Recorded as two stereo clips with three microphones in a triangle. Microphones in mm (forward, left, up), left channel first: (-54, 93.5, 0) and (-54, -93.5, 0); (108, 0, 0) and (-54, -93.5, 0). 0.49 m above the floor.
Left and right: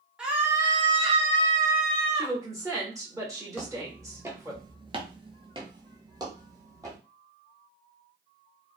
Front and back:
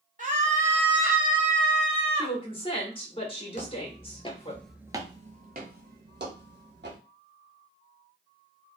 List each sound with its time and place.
0.2 s a scream: 175° right, 0.9 m; by 2.4 s 40° right, 1.4 m
2.1 s a woman speaking: 25° right, 1.0 m
3.5 s footsteps: 5° right, 0.9 m; by 7.0 s 160° right, 1.4 m